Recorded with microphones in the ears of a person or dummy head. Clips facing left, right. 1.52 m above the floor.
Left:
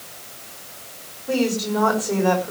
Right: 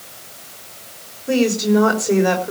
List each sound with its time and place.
1.3 s a woman speaking: 30° right (ahead or behind), 5 m